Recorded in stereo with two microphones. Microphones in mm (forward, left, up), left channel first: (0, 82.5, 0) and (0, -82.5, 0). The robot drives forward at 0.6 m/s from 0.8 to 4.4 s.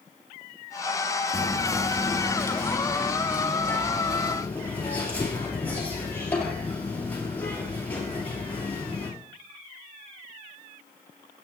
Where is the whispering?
20° left (ahead or behind), 1.2 m; by 9.1 s 10° left (ahead or behind), 2.5 m.